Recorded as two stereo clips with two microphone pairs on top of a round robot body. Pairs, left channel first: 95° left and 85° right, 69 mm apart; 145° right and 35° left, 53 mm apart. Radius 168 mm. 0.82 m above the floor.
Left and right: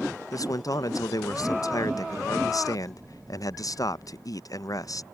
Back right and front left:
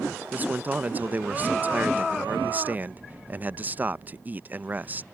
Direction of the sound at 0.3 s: 100° left.